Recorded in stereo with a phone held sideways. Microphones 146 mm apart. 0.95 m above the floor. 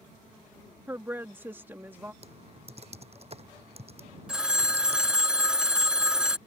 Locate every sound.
0.9 s a woman speaking: 15° right (ahead or behind)
2.2 s typing on a keyboard: 45° right (ahead or behind)
4.3 s a phone ringing: 5° right (ahead or behind)